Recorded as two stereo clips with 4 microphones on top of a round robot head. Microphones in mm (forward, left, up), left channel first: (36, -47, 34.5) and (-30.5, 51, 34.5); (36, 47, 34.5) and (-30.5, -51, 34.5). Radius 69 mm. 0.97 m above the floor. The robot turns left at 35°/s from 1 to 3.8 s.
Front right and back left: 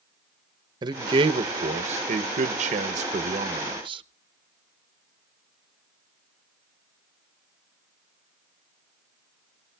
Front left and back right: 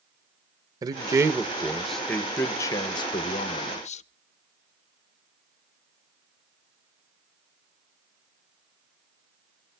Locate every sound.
0.8 s a man speaking: 175° left, 0.7 m; by 4.0 s 80° left, 0.7 m